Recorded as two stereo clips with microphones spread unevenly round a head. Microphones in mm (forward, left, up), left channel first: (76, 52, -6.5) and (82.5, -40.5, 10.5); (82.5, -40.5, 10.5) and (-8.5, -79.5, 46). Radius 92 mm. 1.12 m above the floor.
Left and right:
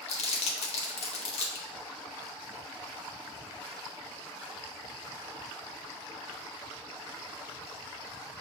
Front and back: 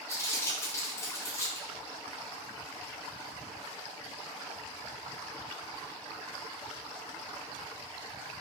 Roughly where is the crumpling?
Left.